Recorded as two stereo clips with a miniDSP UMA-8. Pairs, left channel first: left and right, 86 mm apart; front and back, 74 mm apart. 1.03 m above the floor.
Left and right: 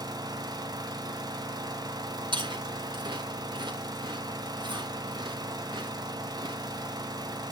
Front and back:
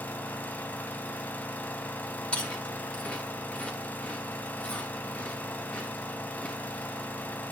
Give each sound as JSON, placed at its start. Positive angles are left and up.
{"t": 0.0, "sound": "an engine running", "azimuth_deg": -65, "distance_m": 1.5}
{"t": 2.3, "sound": "chewing", "azimuth_deg": -75, "distance_m": 3.5}